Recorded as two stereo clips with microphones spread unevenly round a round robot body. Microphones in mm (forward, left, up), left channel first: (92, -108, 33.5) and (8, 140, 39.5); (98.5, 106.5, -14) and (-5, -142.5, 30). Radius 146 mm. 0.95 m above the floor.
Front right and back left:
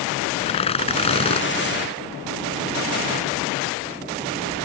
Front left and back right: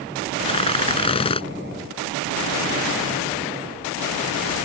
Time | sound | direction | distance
0.4 | tearing paper | 5° right | ?